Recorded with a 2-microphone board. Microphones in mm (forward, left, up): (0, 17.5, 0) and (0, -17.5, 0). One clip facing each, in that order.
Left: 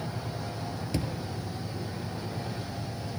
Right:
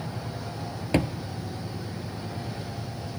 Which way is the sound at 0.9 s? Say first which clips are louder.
Right 9 dB; 50° right (ahead or behind).